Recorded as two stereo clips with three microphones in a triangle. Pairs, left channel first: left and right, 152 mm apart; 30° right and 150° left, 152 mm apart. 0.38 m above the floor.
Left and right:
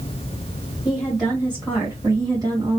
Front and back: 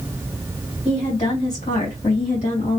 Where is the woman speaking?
Straight ahead, 2 m; by 2.8 s 40° right, 2.0 m.